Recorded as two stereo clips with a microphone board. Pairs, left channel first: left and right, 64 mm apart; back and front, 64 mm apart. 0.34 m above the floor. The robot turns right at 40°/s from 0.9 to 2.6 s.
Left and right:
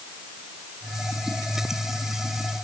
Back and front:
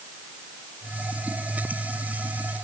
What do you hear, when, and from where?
Only background noise.